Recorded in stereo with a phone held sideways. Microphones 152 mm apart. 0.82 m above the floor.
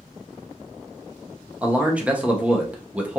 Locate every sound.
1.6 s a man speaking: 10° right (ahead or behind), 0.6 m